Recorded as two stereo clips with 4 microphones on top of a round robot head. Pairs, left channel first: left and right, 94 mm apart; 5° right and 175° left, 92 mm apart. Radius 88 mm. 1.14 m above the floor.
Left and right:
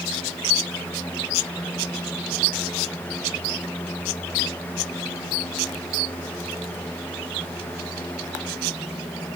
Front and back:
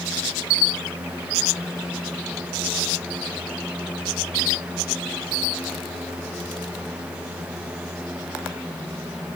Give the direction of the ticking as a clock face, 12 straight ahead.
No ticking in this recording.